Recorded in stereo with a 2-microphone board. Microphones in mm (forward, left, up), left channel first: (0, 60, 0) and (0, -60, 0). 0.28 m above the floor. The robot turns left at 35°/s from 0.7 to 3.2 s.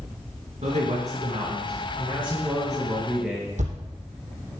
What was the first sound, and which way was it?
A man speaking, 100° right.